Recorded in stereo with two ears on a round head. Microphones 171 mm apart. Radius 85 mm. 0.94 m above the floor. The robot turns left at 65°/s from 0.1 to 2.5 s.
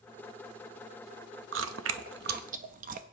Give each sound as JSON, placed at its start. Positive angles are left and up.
{"t": 1.5, "sound": "chewing", "side_deg": -70, "distance_m": 0.7}